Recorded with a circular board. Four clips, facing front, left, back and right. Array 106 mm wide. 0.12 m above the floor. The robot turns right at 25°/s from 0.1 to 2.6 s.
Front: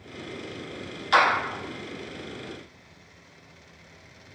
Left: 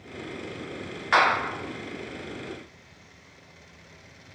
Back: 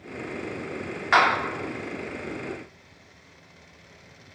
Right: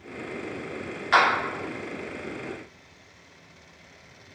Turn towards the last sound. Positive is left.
turn(degrees=-150)